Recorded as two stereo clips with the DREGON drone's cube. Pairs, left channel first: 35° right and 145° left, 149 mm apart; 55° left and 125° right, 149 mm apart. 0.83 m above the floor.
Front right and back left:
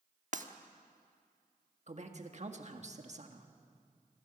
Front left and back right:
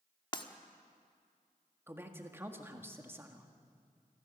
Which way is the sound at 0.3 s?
115° left.